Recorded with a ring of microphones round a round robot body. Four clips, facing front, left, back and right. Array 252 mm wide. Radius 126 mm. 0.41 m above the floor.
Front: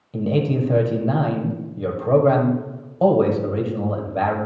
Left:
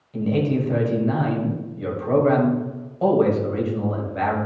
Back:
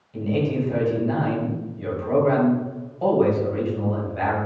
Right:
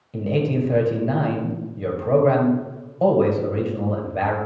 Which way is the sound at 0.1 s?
35° right.